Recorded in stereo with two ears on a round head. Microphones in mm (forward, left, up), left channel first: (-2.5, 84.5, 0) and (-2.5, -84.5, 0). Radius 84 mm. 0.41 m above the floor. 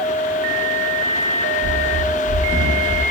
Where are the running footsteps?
50° right (ahead or behind), 0.7 m; by 3.0 s 20° right (ahead or behind), 0.9 m.